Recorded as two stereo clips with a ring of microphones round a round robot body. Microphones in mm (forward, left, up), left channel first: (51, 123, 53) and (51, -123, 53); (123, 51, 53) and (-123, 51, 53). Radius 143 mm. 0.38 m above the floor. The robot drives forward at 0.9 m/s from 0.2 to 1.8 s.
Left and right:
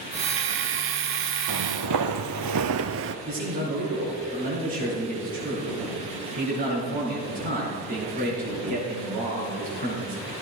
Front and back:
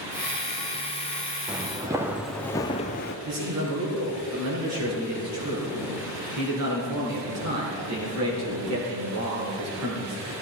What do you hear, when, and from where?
1.5 s footsteps: 95° right, 1.0 m; by 3.1 s 50° right, 0.6 m
3.2 s a man speaking: 150° right, 6 m